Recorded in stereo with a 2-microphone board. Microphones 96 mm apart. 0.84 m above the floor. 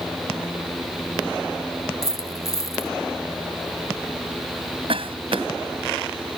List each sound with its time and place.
2.0 s a dropped coin: 35° left (ahead or behind)
4.9 s a cough: 70° right (ahead or behind)